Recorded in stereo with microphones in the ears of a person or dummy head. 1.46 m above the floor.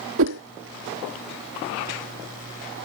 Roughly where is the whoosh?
Right.